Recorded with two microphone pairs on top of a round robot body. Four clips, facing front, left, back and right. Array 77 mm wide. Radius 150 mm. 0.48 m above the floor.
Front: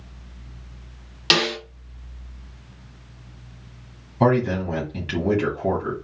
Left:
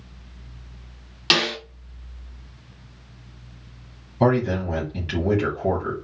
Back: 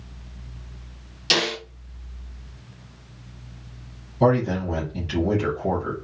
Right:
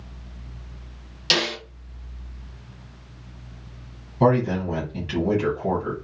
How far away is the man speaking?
About 2.0 m.